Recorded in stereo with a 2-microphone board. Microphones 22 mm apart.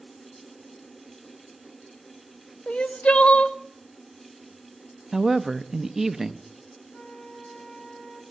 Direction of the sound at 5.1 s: 20° right (ahead or behind).